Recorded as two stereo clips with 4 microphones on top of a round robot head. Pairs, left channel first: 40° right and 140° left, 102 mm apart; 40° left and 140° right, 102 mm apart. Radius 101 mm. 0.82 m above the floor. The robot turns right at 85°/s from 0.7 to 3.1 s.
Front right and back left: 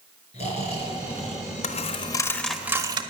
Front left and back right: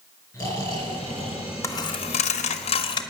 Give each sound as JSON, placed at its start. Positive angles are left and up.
{"t": 0.3, "sound": "snoring", "azimuth_deg": -20, "distance_m": 4.5}
{"t": 1.6, "sound": "a dropped coin", "azimuth_deg": -25, "distance_m": 0.8}